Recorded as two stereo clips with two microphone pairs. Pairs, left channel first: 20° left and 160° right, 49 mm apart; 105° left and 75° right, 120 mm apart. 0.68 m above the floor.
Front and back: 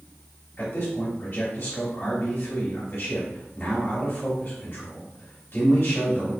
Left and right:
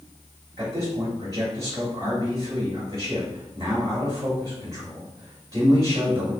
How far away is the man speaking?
About 2 m.